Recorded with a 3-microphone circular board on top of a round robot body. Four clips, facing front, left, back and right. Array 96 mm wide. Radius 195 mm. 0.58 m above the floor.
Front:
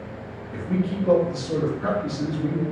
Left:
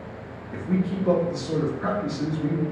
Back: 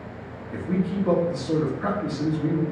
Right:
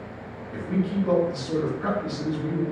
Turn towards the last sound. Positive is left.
turn(degrees=140)